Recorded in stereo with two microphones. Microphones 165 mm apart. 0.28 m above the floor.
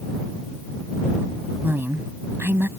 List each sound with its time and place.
1.6 s a woman speaking: 15° right (ahead or behind)